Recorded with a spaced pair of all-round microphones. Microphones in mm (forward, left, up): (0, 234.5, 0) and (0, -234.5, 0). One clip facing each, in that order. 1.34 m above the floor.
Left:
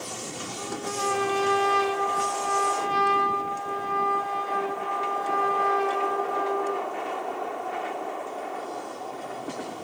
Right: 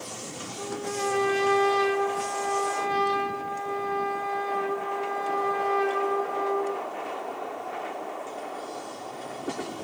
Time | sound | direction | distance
0.6 | a trumpet | 25° left (ahead or behind) | 1.7 m